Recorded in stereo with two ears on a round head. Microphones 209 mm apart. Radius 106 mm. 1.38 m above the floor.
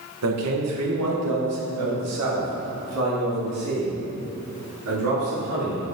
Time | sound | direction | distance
0.2 | a man speaking | 75° right (ahead or behind) | 1.3 m